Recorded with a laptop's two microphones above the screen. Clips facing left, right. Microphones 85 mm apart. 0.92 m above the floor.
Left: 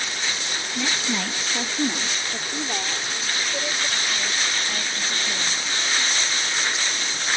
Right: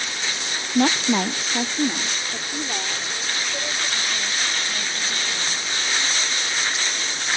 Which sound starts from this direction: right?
A woman speaking, at 0.8 s.